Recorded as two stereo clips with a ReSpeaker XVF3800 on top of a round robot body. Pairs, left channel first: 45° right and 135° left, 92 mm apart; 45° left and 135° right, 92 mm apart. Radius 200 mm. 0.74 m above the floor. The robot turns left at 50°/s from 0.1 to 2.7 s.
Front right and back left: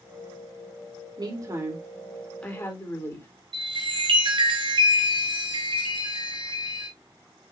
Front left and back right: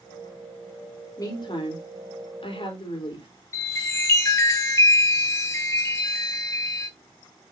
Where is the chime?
105° left, 4.5 m.